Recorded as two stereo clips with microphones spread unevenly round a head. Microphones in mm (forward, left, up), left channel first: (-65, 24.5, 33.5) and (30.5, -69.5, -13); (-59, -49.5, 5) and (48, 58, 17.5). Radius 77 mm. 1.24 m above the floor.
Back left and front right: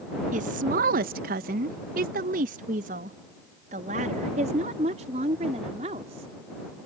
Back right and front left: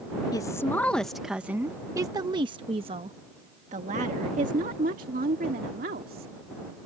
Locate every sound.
0.3 s a woman speaking: 70° right; by 6.3 s 10° left